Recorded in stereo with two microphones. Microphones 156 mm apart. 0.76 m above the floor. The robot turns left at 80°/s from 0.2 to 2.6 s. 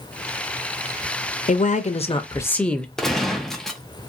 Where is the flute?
I don't hear a flute.